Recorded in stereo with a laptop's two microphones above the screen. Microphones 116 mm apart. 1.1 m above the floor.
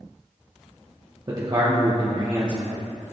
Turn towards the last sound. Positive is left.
turn(degrees=-35)  # may be behind; listen again after turning